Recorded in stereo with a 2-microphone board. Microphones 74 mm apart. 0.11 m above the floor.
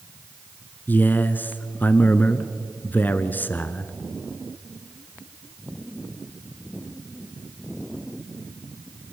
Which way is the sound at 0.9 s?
25° left (ahead or behind).